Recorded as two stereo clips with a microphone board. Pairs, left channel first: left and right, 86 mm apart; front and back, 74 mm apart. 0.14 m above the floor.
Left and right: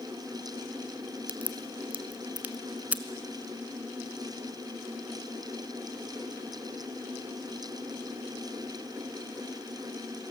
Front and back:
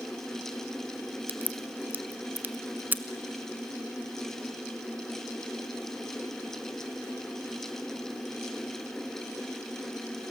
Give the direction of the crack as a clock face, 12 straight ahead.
5 o'clock.